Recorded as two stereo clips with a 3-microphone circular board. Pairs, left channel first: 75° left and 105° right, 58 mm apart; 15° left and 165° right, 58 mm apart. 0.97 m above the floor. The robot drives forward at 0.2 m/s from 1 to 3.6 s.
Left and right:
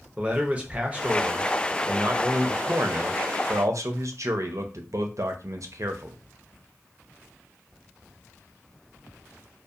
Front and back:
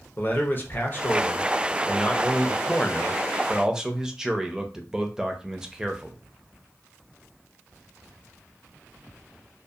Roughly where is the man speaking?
Ahead right.